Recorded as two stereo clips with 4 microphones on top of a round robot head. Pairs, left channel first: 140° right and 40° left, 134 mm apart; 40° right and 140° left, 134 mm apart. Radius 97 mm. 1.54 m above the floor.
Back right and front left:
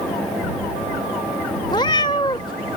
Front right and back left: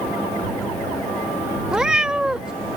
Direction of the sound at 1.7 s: 145° right.